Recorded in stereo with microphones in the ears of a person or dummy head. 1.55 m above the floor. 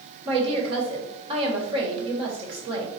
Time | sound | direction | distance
0.2 | a woman speaking | 30° right (ahead or behind) | 1.4 m